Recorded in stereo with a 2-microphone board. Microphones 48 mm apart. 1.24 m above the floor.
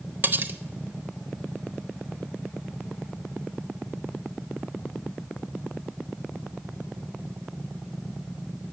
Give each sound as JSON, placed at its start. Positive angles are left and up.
{"t": 0.2, "sound": "cutlery clinking", "side_deg": -40, "distance_m": 0.6}